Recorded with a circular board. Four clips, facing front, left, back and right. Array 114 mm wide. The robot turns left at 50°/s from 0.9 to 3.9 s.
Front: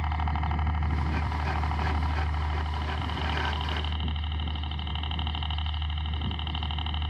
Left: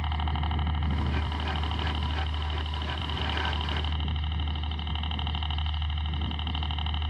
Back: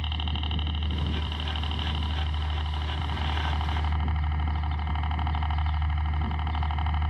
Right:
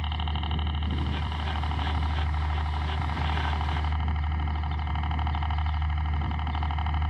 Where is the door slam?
No door slam in this recording.